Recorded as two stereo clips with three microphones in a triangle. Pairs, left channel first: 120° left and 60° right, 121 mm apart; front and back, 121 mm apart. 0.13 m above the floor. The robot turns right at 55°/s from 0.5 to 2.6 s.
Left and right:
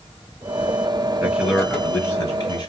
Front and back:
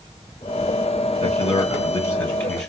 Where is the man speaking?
10° left, 2.5 m; by 2.7 s 85° left, 2.5 m.